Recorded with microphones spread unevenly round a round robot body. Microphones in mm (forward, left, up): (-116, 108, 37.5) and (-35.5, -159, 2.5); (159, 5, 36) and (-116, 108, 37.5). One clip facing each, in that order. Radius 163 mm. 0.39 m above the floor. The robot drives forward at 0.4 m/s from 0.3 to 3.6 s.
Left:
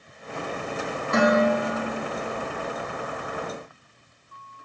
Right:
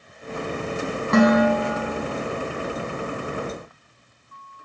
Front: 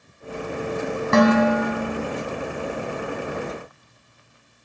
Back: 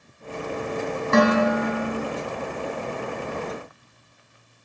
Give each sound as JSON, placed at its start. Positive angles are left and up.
{"t": 1.1, "sound": "dishes clattering", "azimuth_deg": -35, "distance_m": 1.9}